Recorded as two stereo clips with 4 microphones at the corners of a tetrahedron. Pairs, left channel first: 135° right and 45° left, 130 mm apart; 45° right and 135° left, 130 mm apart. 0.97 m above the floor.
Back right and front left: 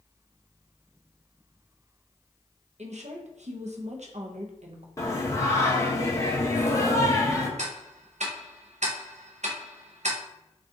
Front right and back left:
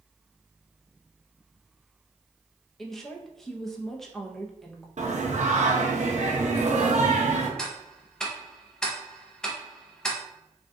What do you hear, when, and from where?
2.8 s a woman speaking: 40° left, 0.6 m
5.0 s singing: 155° left, 0.6 m
7.6 s ticking: 40° left, 0.5 m